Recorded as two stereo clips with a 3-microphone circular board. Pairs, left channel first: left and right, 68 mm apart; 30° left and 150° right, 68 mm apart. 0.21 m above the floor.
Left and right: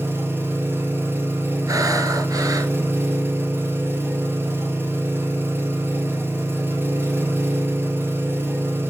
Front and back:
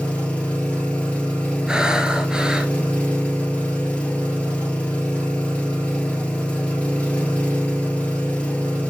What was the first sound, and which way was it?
An engine running, 40° right.